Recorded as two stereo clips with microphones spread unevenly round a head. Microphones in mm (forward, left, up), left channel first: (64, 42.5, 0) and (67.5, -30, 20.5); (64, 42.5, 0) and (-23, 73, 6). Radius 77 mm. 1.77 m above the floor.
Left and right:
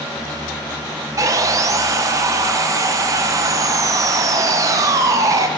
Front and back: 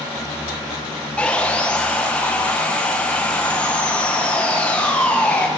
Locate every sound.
1.2 s sawing: 100° right, 1.0 m